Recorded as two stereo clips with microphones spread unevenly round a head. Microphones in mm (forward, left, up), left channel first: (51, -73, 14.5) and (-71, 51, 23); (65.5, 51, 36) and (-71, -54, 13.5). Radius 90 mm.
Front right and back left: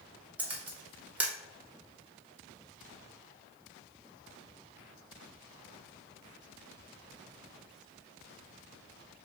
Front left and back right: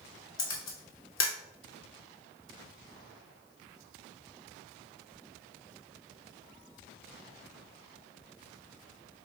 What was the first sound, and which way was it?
A camera shutter, 50° left.